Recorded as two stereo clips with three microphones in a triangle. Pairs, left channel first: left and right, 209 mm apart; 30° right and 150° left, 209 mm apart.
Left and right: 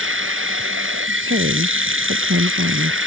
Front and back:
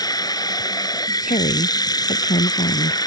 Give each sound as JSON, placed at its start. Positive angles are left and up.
{"t": 0.0, "sound": "running water", "azimuth_deg": -100}
{"t": 1.2, "sound": "a woman speaking", "azimuth_deg": -85}